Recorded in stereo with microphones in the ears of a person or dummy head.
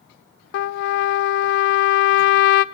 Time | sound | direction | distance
0.5 | a trumpet | 65° left (ahead or behind) | 0.6 m